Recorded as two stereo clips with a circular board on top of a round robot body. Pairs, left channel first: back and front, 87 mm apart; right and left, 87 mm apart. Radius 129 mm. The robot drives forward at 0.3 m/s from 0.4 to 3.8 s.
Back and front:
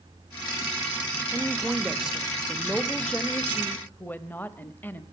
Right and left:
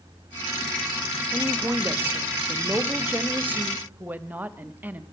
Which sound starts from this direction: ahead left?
A woman speaking, at 1.3 s.